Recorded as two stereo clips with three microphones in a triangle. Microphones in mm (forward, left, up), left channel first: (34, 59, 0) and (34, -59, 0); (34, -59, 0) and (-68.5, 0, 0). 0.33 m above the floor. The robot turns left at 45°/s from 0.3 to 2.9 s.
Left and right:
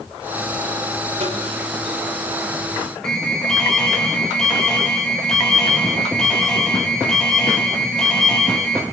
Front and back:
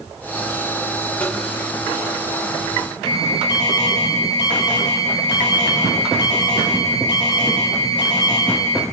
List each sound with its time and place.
1.2 s tapping: 105° right, 4.5 m; by 1.4 s 115° right, 4.5 m
3.0 s an alarm: 5° left, 3.5 m